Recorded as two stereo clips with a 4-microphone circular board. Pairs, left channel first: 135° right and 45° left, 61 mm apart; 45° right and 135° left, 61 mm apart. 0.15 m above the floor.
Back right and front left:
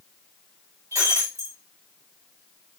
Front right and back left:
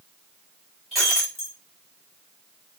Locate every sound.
0.9 s breaking glass: 45° left, 5 m